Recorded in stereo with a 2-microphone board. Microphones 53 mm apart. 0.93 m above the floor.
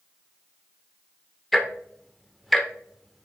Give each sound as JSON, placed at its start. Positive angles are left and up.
{"t": 1.5, "sound": "ticking", "side_deg": 0, "distance_m": 1.0}